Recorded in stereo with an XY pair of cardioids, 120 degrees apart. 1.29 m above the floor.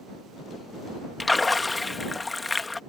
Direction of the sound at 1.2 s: 20° left.